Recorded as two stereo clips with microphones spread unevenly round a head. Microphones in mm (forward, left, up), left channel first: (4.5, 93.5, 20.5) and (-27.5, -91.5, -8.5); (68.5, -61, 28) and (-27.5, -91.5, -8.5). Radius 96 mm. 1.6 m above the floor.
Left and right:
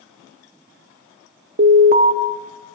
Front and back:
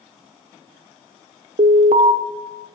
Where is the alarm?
145° right, 0.7 m.